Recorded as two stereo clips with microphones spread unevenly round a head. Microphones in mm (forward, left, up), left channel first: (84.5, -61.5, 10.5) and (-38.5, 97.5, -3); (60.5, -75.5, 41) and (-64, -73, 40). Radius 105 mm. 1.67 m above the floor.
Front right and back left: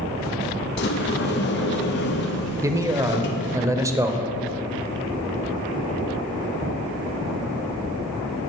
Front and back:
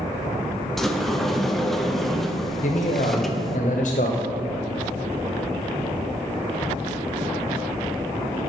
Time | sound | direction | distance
0.8 | a sliding door | 90° right | 0.6 m
2.6 | a man speaking | 50° left | 0.7 m